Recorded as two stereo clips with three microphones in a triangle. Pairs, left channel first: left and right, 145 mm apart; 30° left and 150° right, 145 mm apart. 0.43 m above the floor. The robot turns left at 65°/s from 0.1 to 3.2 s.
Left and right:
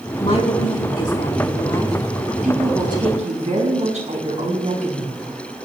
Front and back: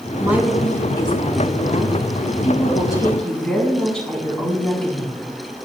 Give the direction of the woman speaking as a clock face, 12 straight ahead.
7 o'clock.